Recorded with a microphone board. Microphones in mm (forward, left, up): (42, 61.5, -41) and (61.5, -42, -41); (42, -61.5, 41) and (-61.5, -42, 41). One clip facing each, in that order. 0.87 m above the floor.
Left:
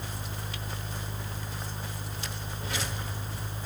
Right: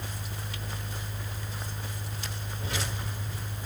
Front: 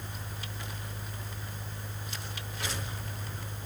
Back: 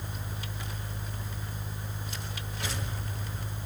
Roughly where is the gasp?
I don't hear a gasp.